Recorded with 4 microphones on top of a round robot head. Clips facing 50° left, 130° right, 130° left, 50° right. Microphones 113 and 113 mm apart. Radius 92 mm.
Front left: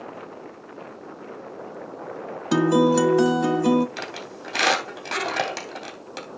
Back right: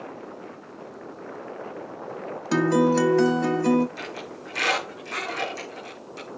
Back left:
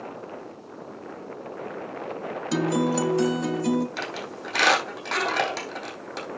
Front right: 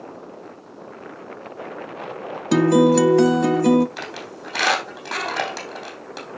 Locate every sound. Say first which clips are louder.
2.5 s a guitar: front left 2 dB, front right 9 dB; 25° right, 0.9 m
4.0 s a squeak: front left 1 dB, even; 40° left, 3.5 m